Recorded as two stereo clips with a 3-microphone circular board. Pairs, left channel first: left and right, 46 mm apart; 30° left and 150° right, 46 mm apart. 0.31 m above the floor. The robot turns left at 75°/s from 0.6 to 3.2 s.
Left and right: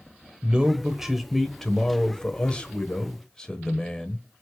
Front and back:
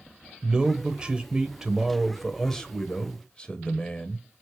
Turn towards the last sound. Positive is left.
turn(degrees=45)